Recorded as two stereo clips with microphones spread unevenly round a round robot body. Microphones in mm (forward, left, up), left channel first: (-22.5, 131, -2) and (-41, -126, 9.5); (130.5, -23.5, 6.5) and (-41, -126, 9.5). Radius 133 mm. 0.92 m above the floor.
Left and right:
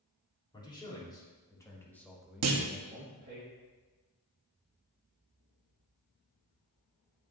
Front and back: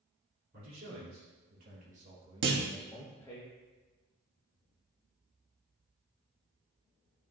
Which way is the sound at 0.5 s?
155° left.